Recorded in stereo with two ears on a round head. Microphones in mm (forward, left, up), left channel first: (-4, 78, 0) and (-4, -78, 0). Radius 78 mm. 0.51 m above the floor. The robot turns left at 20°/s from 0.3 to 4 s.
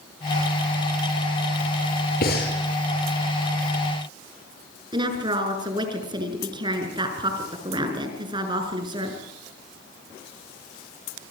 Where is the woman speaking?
25° right (ahead or behind), 6.5 m.